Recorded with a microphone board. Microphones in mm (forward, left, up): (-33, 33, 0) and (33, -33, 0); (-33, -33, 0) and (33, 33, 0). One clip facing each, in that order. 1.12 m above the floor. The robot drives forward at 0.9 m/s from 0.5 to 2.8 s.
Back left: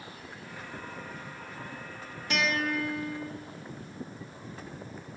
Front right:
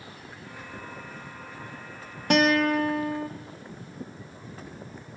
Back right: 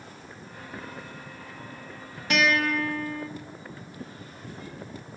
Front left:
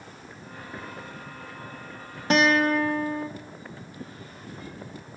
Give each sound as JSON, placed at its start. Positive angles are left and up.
{"t": 2.3, "sound": "a guitar", "azimuth_deg": -10, "distance_m": 1.5}